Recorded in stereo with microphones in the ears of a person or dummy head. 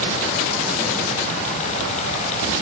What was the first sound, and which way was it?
Only background noise.